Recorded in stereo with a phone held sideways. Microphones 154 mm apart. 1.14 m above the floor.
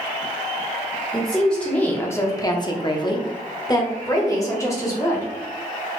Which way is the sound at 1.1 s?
Centre (ahead or behind).